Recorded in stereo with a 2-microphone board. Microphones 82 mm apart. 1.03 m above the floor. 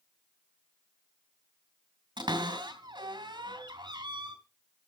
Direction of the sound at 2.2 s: 75° right (ahead or behind).